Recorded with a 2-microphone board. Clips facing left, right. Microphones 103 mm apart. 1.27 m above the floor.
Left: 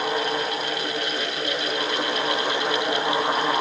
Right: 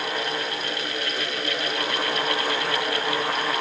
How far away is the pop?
No pop in this recording.